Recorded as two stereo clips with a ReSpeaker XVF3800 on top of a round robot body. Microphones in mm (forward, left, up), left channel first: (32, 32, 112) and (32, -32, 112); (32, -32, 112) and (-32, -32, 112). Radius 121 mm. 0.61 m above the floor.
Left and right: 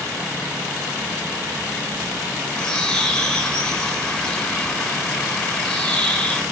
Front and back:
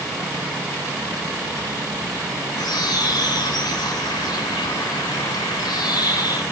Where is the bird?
15° left, 3 m.